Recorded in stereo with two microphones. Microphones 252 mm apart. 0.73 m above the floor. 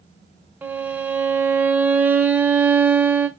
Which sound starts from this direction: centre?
A violin, at 0.6 s.